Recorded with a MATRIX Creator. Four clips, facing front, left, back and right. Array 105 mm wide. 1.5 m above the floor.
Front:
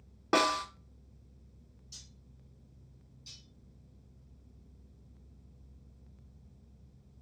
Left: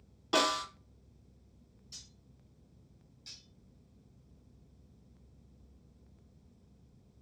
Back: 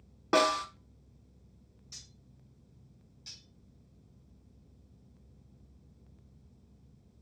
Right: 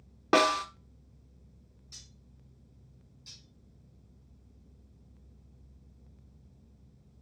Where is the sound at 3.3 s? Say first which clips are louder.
Right 2 dB, even; 165° left, 1.6 m.